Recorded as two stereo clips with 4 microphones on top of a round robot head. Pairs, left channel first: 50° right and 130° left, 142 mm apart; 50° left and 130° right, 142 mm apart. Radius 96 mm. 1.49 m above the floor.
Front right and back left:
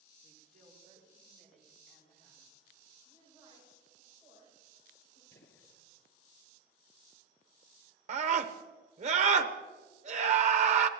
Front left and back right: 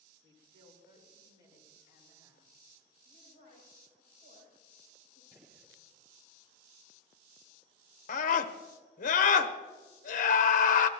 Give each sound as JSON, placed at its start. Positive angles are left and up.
{"t": 0.2, "sound": "a woman speaking", "azimuth_deg": 170, "distance_m": 5.0}
{"t": 3.0, "sound": "a woman speaking", "azimuth_deg": -160, "distance_m": 6.5}
{"t": 5.3, "sound": "a gunshot", "azimuth_deg": -65, "distance_m": 2.0}
{"t": 8.1, "sound": "a scream", "azimuth_deg": 85, "distance_m": 1.0}